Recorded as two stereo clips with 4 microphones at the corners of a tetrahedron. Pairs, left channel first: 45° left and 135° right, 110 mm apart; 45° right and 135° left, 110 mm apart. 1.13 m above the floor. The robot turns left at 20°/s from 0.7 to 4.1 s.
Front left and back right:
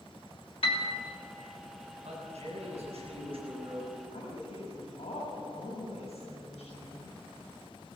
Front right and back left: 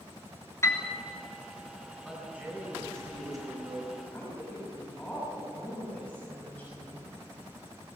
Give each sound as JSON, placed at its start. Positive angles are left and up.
{"t": 0.6, "sound": "a piano", "azimuth_deg": 15, "distance_m": 2.5}
{"t": 2.0, "sound": "a man speaking", "azimuth_deg": -140, "distance_m": 7.5}
{"t": 4.1, "sound": "a woman speaking", "azimuth_deg": 30, "distance_m": 6.5}